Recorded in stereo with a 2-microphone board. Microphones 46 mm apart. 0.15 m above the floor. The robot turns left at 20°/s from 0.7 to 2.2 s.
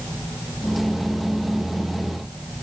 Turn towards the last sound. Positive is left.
No sound to turn to.